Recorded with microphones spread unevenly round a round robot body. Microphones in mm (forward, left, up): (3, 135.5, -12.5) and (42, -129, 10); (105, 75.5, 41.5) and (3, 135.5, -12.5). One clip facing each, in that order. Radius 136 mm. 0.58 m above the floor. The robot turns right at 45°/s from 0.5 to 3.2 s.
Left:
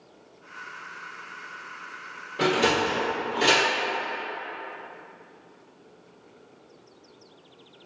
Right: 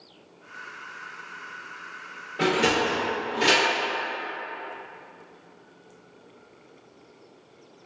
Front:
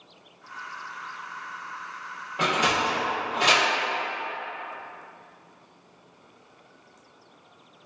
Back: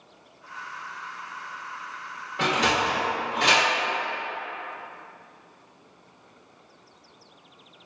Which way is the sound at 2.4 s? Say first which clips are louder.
Even, back 1 dB; 70° left.